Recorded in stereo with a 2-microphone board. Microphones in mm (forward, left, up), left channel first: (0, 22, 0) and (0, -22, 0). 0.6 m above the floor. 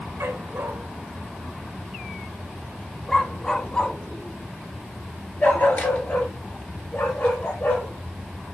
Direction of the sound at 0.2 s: 75° right (ahead or behind).